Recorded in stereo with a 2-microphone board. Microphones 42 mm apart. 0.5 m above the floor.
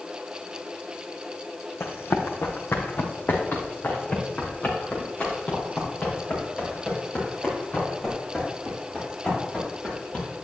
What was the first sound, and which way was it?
Running footsteps, 75° left (ahead or behind).